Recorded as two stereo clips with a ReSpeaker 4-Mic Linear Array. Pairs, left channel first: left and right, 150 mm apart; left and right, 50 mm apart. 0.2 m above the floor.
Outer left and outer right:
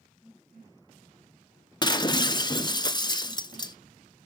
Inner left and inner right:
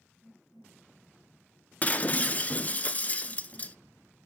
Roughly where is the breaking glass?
Left.